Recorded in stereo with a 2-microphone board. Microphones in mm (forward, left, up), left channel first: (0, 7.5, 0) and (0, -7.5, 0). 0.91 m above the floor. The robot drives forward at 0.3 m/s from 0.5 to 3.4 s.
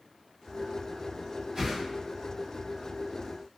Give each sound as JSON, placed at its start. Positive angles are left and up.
{"t": 1.6, "sound": "a whoosh", "side_deg": -35, "distance_m": 1.5}